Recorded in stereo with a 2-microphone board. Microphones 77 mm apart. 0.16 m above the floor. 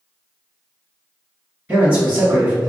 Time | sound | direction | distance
1.7 | a man speaking | 20° right (ahead or behind) | 2.0 m